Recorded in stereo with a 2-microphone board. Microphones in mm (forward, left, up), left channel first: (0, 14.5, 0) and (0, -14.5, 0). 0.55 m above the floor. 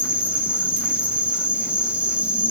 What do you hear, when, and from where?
0.0 s an insect: 50° right (ahead or behind), 1.9 m